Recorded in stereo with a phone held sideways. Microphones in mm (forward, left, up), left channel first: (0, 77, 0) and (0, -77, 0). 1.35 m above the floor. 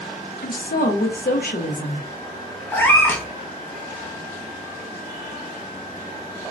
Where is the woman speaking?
80° left, 0.6 m.